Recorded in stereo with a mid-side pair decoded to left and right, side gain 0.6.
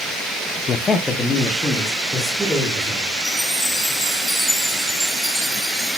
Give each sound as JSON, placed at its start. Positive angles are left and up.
{"t": 0.7, "sound": "a man speaking", "azimuth_deg": 35, "distance_m": 0.5}
{"t": 3.2, "sound": "a chime", "azimuth_deg": 5, "distance_m": 1.3}